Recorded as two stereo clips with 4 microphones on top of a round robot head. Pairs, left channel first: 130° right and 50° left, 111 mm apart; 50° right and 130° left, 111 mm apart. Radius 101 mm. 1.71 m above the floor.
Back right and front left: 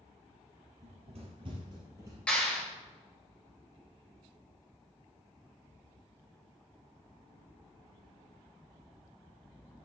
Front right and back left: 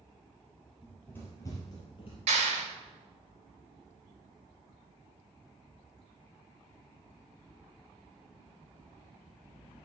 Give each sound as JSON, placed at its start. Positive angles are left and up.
{"t": 0.8, "sound": "running footsteps", "azimuth_deg": 30, "distance_m": 3.0}
{"t": 2.3, "sound": "a clap", "azimuth_deg": 150, "distance_m": 6.0}